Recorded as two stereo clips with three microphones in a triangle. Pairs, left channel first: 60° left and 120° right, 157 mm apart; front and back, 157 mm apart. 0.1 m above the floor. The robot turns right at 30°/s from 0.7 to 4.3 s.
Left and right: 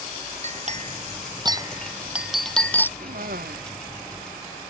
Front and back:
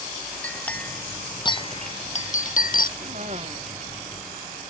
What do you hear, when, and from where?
0.4 s a clink: 80° right; by 2.9 s 15° right
3.0 s a cough: 145° right; by 3.6 s 125° right